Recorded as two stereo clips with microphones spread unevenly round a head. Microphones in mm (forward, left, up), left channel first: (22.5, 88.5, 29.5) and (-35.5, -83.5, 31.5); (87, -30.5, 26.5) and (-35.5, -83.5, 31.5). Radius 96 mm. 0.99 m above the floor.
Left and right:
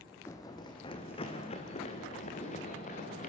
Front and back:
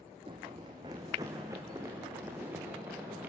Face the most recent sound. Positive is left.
turn(degrees=120)